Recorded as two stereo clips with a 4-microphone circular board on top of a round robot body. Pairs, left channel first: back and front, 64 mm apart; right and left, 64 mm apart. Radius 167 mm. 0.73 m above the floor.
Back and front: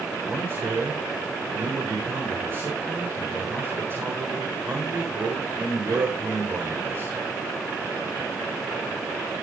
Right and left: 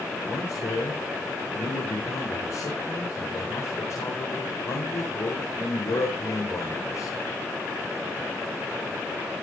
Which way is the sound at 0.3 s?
50° right.